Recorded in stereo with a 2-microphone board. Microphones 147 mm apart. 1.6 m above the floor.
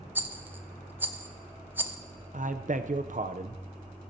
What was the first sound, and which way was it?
A rattle, 10° right (ahead or behind).